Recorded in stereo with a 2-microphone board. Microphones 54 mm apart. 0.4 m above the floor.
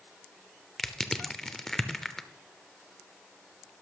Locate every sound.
0.8 s crushing: 10° left (ahead or behind), 0.6 m